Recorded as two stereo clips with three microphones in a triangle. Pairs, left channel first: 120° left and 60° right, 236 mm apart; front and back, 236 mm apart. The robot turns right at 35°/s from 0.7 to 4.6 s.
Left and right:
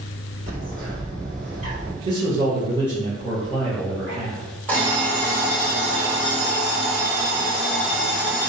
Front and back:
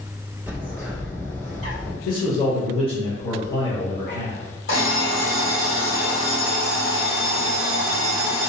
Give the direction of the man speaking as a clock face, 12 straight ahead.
1 o'clock.